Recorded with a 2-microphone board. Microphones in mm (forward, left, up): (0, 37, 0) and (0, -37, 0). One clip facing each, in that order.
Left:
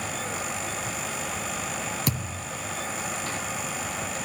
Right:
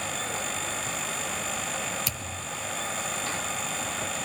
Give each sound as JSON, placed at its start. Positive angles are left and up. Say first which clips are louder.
{"t": 2.1, "sound": "a thud", "louder": "left 6 dB", "side_deg": 50, "distance_m": 3.0}